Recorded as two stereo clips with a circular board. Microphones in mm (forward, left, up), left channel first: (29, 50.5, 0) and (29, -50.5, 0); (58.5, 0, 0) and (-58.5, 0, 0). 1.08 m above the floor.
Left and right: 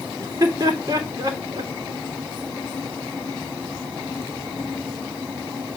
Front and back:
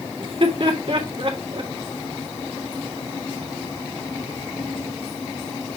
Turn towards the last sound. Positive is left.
turn(degrees=-140)